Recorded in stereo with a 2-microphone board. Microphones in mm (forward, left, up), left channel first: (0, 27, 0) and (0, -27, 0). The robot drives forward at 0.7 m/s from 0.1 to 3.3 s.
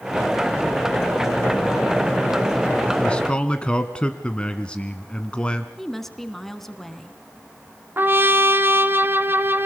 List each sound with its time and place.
3.0 s a man speaking: 20° left (ahead or behind), 1.4 m
5.8 s a woman speaking: 5° left (ahead or behind), 1.7 m
8.0 s a trumpet: 40° right (ahead or behind), 0.8 m